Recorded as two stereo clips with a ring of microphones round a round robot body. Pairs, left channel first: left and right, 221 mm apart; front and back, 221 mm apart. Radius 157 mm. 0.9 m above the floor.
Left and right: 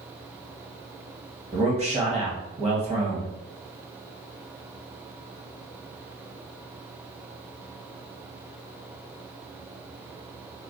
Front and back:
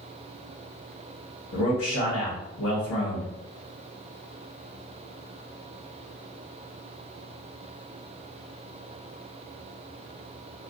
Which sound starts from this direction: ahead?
A man speaking, at 1.5 s.